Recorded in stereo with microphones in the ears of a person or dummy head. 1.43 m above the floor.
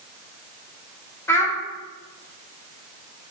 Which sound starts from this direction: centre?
A child speaking, at 1.3 s.